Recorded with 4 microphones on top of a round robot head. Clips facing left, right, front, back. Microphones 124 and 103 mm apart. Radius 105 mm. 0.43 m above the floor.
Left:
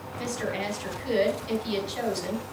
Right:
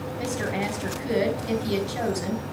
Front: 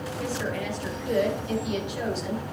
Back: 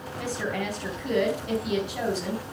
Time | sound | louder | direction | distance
0.2 | a woman speaking | right 2 dB, back 1 dB | 130° right | 4 m